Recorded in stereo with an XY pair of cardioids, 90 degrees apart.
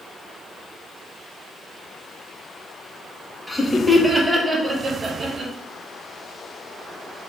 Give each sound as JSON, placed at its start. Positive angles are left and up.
{"t": 3.5, "sound": "laughter", "azimuth_deg": 0, "distance_m": 1.2}